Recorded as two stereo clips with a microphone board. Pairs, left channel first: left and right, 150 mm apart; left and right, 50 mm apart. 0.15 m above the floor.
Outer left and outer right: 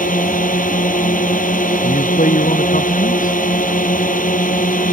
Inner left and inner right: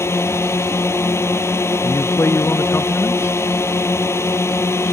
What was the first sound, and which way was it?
A drone, 65° left (ahead or behind).